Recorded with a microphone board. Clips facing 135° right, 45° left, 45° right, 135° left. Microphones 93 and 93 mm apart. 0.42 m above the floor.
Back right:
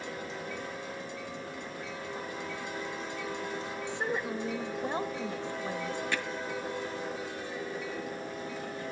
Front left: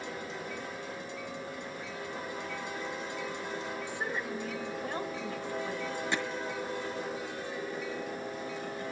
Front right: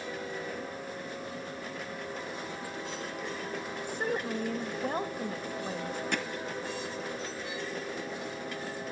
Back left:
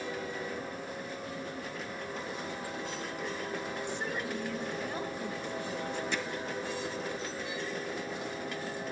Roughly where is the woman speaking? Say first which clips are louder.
Back right 6 dB, front right 7 dB; right.